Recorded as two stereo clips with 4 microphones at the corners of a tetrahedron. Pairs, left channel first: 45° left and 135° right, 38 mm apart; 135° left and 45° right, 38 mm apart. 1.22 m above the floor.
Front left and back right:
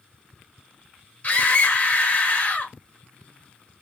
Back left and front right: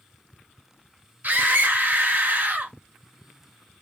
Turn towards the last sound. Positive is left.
turn(degrees=-5)